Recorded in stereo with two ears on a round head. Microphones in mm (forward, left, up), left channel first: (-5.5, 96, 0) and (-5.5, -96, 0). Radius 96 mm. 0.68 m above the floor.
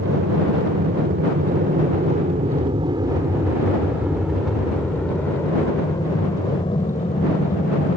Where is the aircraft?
55° right (ahead or behind); by 8.0 s 30° left (ahead or behind).